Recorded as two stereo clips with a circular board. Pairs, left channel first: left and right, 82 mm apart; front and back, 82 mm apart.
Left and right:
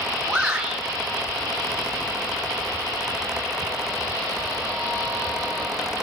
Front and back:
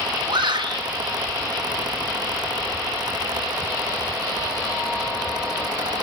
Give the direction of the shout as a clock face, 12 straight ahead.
6 o'clock.